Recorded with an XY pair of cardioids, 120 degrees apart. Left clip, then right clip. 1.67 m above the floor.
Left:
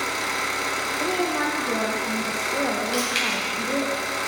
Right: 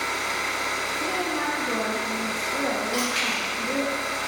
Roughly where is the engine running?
Ahead left.